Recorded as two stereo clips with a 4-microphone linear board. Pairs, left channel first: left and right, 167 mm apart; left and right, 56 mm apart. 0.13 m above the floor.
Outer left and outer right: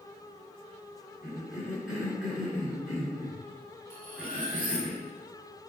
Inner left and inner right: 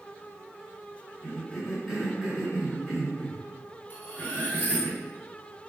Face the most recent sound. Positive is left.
turn(degrees=35)  # may be behind; listen again after turning